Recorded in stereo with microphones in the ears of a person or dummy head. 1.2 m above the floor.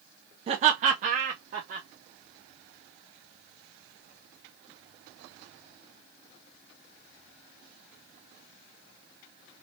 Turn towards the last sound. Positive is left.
turn(degrees=-35)  # may be behind; listen again after turning